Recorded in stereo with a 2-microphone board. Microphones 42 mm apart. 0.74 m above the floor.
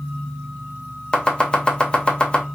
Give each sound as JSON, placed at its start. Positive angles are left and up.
{"t": 1.1, "sound": "chopping", "side_deg": 25, "distance_m": 0.7}